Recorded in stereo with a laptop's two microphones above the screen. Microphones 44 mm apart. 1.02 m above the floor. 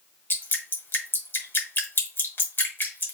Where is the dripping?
50° left (ahead or behind), 1.2 m.